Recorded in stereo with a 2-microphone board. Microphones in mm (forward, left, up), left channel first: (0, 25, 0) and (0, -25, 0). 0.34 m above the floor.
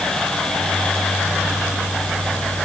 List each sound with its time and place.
Only background noise.